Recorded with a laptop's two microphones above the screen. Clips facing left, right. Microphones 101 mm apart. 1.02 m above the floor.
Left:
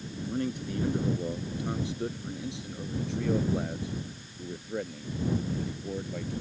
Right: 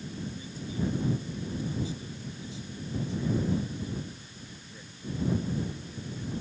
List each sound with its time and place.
0.3 s a man speaking: 65° left (ahead or behind)